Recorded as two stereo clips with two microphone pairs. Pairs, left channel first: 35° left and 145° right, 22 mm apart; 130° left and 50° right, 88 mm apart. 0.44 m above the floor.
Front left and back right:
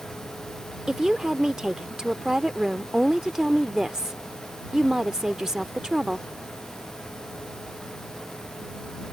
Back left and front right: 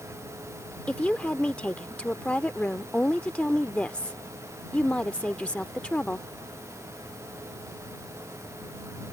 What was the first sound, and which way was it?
A woman speaking, 170° right.